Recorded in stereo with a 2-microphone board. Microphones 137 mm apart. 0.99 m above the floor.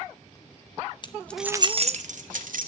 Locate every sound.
1.0 s keys jangling: 35° left (ahead or behind), 0.8 m; by 2.7 s 75° right (ahead or behind), 1.9 m